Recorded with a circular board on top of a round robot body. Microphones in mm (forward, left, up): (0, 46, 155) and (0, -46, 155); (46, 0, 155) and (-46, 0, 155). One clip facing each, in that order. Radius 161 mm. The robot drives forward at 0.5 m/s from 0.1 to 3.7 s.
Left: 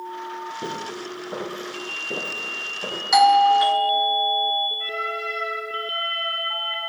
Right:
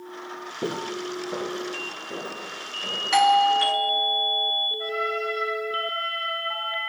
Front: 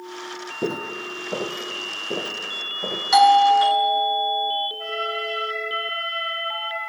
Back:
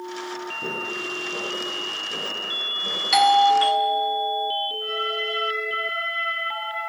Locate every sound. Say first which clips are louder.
0.6 s footsteps: right 1 dB, front 8 dB; 20° right, 1.2 m; by 3.0 s 30° left, 2.5 m
3.1 s a doorbell: left 4 dB, front 3 dB; 30° left, 1.3 m; by 4.7 s 55° left, 1.2 m
4.8 s a trumpet: right 1 dB, even; 15° right, 3.5 m